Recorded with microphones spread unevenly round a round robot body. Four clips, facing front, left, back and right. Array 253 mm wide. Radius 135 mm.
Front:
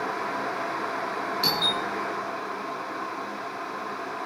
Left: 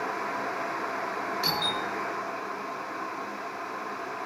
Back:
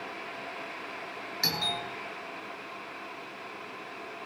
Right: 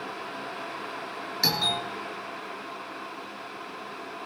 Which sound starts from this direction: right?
A doorbell, at 1.4 s.